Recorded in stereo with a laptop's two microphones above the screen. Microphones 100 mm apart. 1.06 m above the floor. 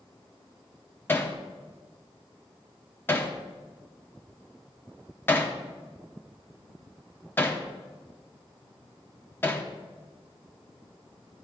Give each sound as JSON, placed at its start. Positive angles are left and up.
{"t": 1.1, "sound": "hammering", "side_deg": 20, "distance_m": 0.8}